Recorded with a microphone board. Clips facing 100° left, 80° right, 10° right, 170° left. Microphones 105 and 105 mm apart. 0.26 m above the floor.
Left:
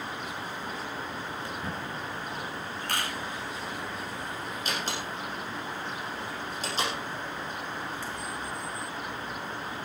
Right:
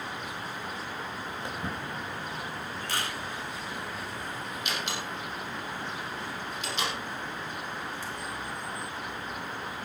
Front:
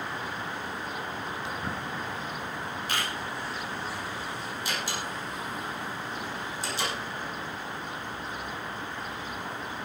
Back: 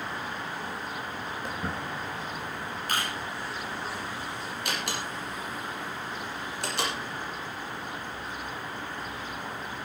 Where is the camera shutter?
130° left, 5 m.